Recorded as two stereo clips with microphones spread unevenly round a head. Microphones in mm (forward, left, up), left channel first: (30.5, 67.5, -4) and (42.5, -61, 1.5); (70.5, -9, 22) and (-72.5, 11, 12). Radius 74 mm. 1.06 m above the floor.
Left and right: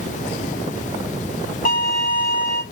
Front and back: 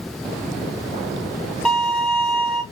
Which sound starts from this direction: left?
A violin, at 1.6 s.